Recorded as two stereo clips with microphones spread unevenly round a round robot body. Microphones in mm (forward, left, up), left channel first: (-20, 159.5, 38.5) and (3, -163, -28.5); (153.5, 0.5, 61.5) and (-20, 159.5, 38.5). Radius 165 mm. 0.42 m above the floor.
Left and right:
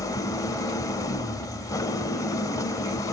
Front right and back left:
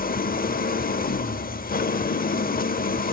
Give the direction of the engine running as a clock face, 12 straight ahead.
12 o'clock.